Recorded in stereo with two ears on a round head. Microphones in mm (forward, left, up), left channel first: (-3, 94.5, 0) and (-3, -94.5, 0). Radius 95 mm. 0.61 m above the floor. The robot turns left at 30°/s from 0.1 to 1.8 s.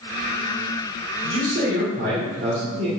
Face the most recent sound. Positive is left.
turn(degrees=-45)  # may be behind; listen again after turning